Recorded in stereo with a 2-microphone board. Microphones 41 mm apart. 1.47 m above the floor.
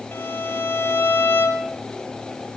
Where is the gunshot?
I don't hear a gunshot.